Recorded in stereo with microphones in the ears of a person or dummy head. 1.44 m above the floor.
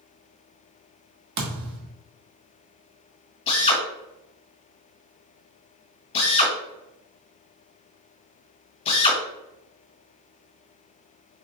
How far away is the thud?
About 1.4 m.